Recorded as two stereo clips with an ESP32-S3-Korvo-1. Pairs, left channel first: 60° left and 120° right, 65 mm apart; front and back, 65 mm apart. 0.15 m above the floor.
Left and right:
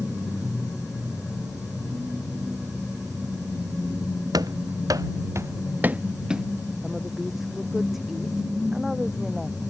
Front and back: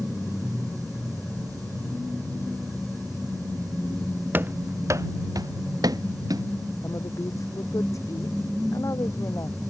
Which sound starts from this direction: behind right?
Running footsteps, at 4.3 s.